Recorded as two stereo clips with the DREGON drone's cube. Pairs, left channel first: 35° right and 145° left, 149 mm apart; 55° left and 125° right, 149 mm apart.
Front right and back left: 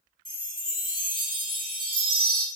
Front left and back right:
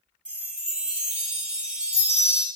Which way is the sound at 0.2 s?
155° left.